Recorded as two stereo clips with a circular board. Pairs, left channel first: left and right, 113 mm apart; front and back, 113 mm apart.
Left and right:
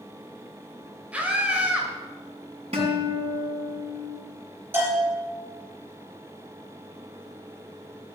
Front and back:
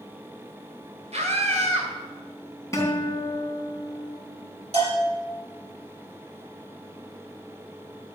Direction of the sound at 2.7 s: 65° right.